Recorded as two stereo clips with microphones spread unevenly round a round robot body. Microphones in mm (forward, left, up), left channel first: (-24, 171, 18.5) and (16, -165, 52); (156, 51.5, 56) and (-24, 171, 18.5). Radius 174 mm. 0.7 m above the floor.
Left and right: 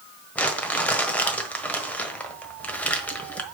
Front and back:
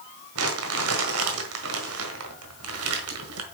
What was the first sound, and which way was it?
Crumpling, 175° right.